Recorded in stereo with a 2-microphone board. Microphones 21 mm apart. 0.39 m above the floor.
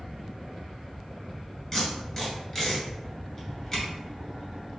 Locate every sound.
1.7 s tape being pulled: 20° left (ahead or behind), 2.0 m